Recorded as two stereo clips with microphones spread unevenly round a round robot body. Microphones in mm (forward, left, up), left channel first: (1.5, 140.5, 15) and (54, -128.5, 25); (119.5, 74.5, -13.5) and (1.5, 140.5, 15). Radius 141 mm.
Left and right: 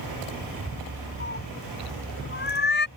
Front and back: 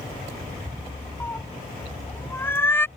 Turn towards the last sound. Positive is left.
turn(degrees=45)